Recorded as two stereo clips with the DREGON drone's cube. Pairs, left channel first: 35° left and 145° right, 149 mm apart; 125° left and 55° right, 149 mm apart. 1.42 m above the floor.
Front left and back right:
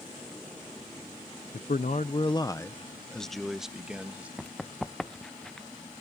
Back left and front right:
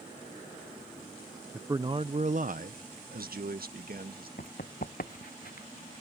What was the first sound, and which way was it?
A man speaking, 25° left.